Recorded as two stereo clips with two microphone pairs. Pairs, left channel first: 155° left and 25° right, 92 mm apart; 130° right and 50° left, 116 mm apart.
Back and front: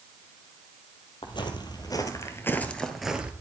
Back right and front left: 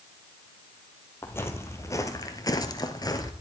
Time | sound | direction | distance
1.2 | footsteps | 165° left | 1.7 m